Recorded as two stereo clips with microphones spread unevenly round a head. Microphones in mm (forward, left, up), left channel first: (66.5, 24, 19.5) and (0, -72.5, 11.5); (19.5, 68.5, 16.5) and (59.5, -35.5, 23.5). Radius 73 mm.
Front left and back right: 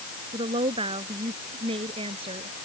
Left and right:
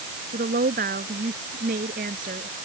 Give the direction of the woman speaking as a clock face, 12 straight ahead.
3 o'clock.